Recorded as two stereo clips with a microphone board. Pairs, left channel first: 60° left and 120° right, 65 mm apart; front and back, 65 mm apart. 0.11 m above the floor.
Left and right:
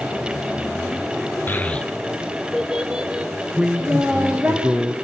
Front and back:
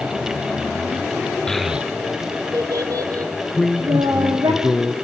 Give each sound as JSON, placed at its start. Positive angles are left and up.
{"t": 1.5, "sound": "a child speaking", "azimuth_deg": 70, "distance_m": 0.9}
{"t": 3.5, "sound": "a man speaking", "azimuth_deg": -65, "distance_m": 1.3}